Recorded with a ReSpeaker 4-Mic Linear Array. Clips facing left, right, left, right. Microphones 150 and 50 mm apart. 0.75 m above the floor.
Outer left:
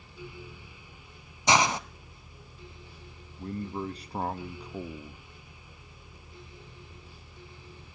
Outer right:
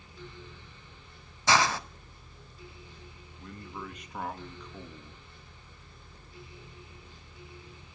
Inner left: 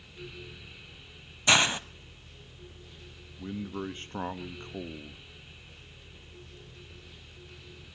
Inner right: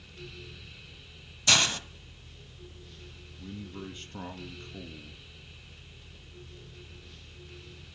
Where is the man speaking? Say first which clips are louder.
Outer left 8 dB, inner left 6 dB; 30° left (ahead or behind), 0.8 m.